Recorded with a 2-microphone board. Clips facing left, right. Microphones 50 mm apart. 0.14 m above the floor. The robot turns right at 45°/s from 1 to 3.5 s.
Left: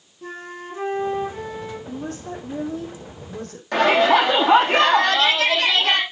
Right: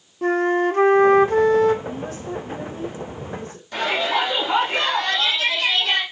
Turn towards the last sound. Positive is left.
turn(degrees=65)  # may be behind; listen again after turning